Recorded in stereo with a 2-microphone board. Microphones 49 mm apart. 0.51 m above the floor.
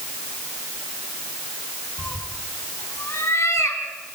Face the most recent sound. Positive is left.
turn(degrees=85)